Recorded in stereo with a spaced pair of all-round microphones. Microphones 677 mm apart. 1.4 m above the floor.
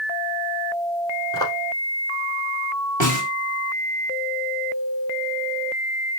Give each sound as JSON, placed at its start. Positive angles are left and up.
{"t": 1.3, "sound": "footsteps", "side_deg": 5, "distance_m": 2.5}
{"t": 3.0, "sound": "a snare drum", "side_deg": -25, "distance_m": 1.6}